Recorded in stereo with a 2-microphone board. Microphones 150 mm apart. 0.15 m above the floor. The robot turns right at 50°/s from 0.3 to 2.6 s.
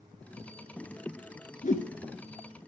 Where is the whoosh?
60° left (ahead or behind), 0.5 m; by 1.9 s 65° left (ahead or behind), 0.5 m.